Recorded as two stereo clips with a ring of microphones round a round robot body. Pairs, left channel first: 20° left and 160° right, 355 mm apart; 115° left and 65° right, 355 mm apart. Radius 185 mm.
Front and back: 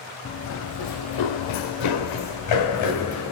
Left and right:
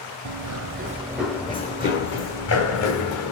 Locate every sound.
0.2 s running footsteps: 40° right, 0.7 m; by 3.3 s 70° left, 1.6 m